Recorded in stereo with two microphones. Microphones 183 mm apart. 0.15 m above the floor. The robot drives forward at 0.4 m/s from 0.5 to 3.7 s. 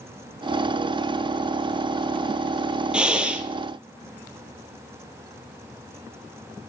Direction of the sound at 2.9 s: 5° right (ahead or behind).